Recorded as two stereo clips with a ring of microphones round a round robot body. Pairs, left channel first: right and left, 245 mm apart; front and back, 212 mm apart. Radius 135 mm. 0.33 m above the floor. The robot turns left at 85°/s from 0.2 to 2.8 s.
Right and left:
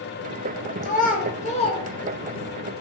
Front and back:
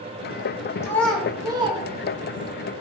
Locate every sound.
0.8 s a child speaking: 65° right, 0.7 m; by 2.6 s 150° left, 0.7 m